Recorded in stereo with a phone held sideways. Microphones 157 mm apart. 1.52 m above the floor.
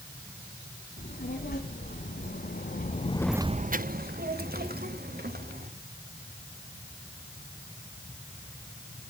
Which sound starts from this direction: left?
A child speaking, at 1.0 s.